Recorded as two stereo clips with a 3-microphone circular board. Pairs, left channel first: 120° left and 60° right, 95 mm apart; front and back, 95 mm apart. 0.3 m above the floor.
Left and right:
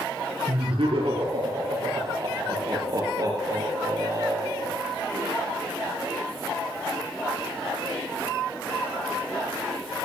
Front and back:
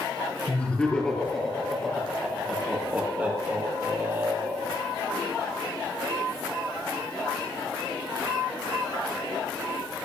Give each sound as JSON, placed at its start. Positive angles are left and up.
{"t": 0.5, "sound": "laughter", "azimuth_deg": -75, "distance_m": 5.5}